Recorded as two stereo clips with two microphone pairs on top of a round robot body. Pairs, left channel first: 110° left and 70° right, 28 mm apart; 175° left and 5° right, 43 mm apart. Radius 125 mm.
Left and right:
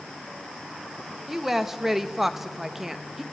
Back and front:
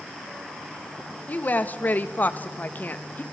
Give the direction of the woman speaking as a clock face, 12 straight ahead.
5 o'clock.